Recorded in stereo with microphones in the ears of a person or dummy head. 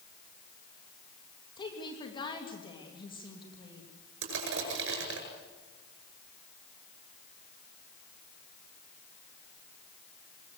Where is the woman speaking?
30° left (ahead or behind), 3 m.